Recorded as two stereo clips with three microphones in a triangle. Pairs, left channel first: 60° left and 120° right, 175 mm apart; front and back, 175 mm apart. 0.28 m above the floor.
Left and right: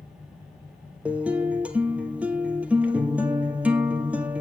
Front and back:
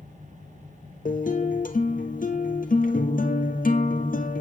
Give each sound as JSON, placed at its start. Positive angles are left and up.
{"t": 1.1, "sound": "a guitar", "azimuth_deg": -35, "distance_m": 1.6}